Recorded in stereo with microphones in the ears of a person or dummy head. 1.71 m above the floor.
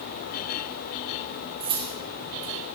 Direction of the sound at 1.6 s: 30° right (ahead or behind).